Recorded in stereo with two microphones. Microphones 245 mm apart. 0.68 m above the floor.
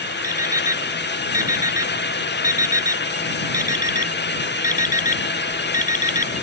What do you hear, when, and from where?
0.2 s an alarm clock: 30° left (ahead or behind)